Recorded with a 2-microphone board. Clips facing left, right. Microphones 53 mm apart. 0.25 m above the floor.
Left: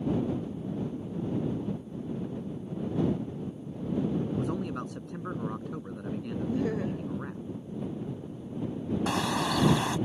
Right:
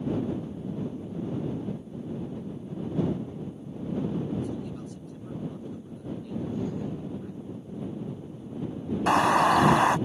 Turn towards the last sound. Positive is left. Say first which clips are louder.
# right 10 dB
turn(degrees=-45)  # may be behind; listen again after turning